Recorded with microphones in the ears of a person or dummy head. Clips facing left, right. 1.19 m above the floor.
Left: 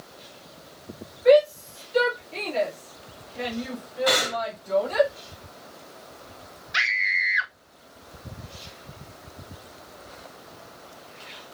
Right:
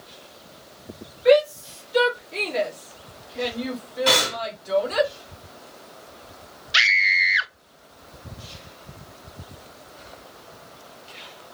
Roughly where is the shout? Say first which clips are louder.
Even; centre.